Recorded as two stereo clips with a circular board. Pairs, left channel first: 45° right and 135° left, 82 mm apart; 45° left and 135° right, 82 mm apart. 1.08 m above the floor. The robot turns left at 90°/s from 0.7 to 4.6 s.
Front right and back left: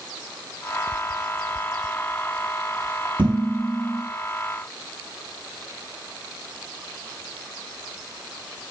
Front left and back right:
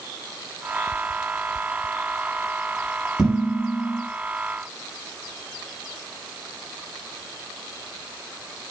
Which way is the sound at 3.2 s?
140° left.